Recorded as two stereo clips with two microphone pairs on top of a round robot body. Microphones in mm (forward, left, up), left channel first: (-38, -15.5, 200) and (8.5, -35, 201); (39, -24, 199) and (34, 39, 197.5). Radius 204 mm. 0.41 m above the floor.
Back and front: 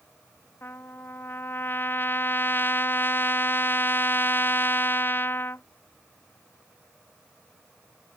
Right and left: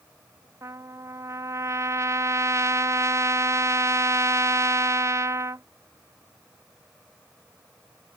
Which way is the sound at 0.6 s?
125° left.